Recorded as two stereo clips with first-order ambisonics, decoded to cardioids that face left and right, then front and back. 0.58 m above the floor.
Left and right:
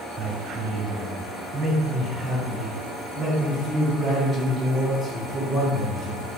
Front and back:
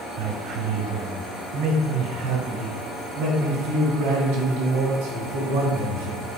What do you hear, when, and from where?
0.2 s a man speaking: 145° right, 2.5 m; by 6.2 s 175° right, 5.5 m